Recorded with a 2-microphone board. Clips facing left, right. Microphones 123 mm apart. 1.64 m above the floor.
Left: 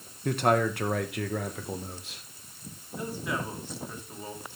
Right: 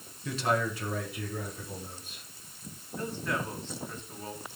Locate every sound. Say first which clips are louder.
0.2 s a man speaking: left 5 dB; 55° left (ahead or behind), 1.6 m; by 2.2 s 85° left, 2.0 m
3.0 s a man speaking: even; 10° left (ahead or behind), 3 m